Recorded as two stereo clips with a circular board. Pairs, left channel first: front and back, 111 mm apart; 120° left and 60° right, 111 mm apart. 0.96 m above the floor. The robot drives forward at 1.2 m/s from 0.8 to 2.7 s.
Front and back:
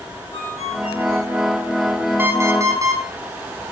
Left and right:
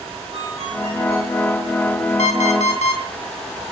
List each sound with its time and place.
0.3 s a ringtone: 25° right, 5.5 m
2.2 s an alarm clock: 110° left, 2.5 m; by 3.0 s 120° left, 3 m